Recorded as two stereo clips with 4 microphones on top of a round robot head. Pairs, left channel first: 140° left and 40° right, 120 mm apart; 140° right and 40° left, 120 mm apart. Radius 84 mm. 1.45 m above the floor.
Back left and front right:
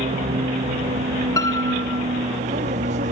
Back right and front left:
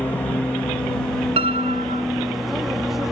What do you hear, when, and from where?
0.0 s an aircraft: 60° right; by 3.1 s 45° right
1.4 s a piano: 75° left